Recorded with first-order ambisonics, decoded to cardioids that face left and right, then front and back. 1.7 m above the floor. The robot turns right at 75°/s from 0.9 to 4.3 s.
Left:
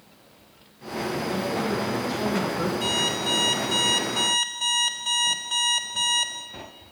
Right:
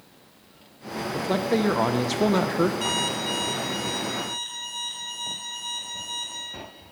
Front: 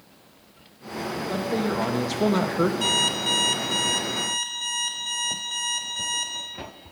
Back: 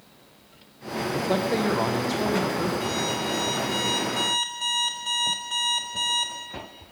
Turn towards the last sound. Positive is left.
turn(degrees=95)